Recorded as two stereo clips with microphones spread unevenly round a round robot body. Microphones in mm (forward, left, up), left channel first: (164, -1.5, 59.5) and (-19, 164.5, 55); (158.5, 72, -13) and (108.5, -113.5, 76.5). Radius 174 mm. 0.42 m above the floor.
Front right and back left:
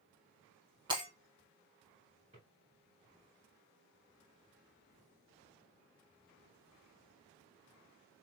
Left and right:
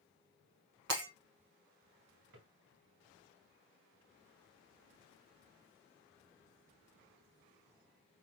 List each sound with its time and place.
0.9 s breaking glass: 145° right, 0.8 m
2.3 s a drawer: 150° right, 1.9 m